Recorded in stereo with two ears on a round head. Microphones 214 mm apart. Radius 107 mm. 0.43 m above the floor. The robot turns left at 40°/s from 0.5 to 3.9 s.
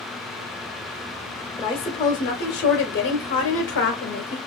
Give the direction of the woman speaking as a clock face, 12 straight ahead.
7 o'clock.